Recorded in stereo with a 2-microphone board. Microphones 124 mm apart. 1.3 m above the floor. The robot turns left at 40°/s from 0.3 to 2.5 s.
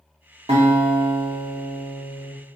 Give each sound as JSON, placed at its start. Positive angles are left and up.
{"t": 0.5, "sound": "a guitar", "azimuth_deg": -75, "distance_m": 1.1}